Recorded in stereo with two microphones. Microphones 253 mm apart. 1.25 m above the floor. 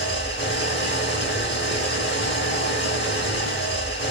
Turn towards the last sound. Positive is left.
turn(degrees=45)  # may be behind; listen again after turning